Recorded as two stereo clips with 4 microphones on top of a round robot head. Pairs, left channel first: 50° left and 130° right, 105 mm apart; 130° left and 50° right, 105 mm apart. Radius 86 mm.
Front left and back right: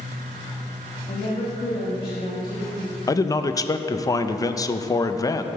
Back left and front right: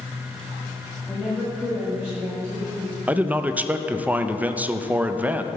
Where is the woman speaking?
40° left, 1.8 m; by 3.0 s straight ahead, 1.6 m.